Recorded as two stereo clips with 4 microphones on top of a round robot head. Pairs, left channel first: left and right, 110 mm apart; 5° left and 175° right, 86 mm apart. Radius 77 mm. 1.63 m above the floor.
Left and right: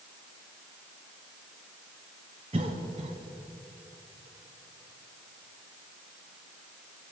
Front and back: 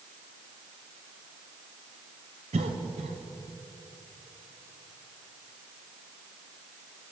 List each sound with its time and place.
2.5 s a cough: 145° right, 0.7 m